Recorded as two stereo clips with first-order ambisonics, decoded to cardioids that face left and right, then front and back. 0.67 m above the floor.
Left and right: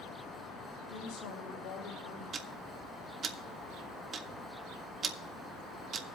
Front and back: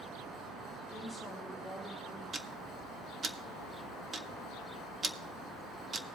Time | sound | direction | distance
0.9 | a woman speaking | 90° left | 4 m
2.3 | ticking | 120° right | 0.6 m